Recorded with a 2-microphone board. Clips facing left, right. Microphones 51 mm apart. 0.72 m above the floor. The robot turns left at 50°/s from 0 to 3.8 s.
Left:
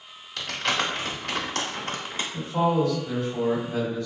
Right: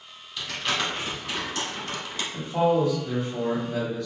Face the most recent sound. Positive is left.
turn(degrees=155)